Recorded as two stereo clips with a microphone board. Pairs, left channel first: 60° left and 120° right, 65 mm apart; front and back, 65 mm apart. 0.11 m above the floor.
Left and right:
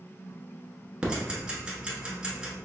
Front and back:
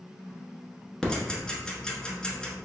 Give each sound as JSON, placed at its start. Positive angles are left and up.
{"t": 1.0, "sound": "ticking", "azimuth_deg": -65, "distance_m": 1.0}